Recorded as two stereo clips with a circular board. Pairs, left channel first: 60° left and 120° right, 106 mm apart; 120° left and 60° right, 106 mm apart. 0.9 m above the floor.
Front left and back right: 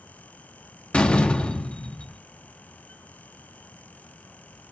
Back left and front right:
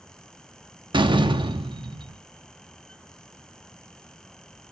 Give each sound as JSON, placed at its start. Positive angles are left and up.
{"t": 0.9, "sound": "a door slam", "azimuth_deg": -20, "distance_m": 0.7}